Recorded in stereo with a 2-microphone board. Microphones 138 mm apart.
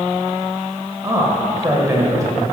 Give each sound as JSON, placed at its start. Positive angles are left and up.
{"t": 1.0, "sound": "a man speaking", "side_deg": -25, "distance_m": 1.3}